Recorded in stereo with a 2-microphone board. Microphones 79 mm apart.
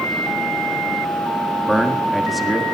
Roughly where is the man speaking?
Centre.